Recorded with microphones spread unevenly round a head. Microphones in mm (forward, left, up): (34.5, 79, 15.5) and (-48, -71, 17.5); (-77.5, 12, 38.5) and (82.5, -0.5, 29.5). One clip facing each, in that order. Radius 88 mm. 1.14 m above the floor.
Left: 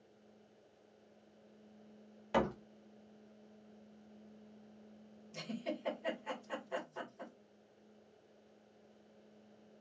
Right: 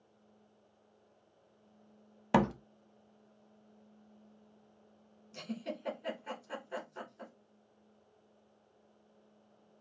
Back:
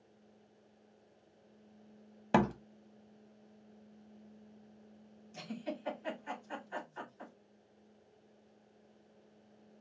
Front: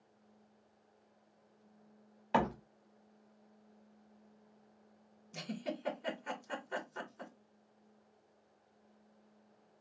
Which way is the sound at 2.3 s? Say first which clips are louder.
Right 5 dB, back 3 dB; 145° right.